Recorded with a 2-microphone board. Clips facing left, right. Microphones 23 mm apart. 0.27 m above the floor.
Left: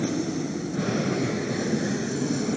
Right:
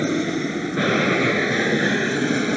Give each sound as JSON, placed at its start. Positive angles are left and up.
{"t": 0.0, "sound": "an aircraft", "side_deg": -60}